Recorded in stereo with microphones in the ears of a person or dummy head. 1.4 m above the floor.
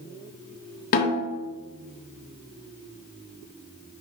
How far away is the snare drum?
About 0.8 m.